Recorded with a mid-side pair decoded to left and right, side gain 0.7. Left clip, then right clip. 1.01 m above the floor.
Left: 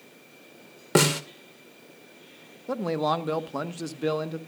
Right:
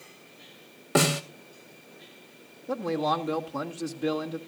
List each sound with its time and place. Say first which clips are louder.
0.9 s a snare drum: left 2 dB; 25° left, 2 m
2.7 s a man speaking: left 1 dB; 30° left, 1.6 m